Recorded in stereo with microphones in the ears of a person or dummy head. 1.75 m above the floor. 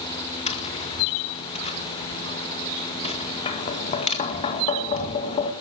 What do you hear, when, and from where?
0.5 s tapping: 30° left (ahead or behind), 1.9 m